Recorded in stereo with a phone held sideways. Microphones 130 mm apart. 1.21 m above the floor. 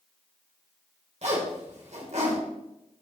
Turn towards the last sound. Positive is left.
turn(degrees=-60)  # may be behind; listen again after turning